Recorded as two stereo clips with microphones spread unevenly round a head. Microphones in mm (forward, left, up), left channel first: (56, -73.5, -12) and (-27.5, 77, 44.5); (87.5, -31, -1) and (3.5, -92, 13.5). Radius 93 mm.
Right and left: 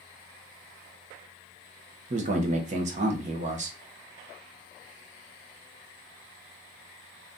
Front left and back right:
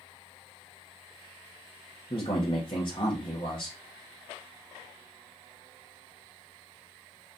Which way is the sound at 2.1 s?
95° left.